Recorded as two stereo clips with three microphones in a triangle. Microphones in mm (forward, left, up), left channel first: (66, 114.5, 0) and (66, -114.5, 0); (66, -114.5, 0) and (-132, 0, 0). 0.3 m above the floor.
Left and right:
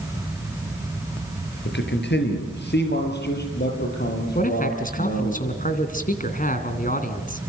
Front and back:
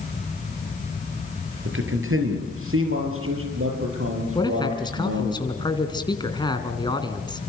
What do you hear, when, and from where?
1.6 s a man speaking: 125° left, 5 m; by 5.3 s 135° left, 9.5 m
4.3 s a man speaking: 40° left, 2.5 m